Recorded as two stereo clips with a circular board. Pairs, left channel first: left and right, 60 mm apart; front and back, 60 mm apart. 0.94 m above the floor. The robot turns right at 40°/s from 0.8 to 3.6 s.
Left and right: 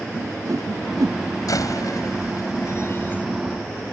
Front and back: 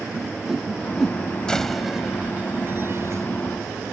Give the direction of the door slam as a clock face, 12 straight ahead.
9 o'clock.